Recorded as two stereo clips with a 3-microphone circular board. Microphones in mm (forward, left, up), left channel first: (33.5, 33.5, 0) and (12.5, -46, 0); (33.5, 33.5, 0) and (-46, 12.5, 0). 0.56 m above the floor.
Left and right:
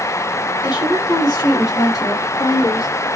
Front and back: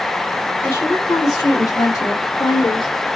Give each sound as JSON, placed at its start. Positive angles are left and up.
{"t": 0.6, "sound": "a woman speaking", "azimuth_deg": 70, "distance_m": 2.0}